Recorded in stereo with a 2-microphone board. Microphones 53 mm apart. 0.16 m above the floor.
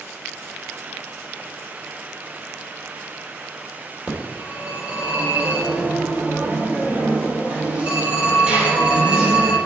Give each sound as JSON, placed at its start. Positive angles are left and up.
{"t": 4.1, "sound": "a phone ringing", "side_deg": -25, "distance_m": 3.0}